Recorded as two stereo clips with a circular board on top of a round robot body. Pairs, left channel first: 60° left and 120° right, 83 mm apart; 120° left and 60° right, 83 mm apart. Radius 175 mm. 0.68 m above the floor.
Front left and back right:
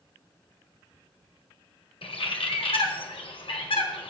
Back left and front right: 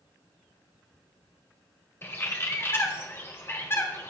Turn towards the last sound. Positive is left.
turn(degrees=60)